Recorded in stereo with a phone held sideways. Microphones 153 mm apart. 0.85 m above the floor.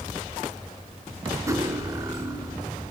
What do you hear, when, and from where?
1.5 s cutlery clinking: 20° right (ahead or behind), 1.6 m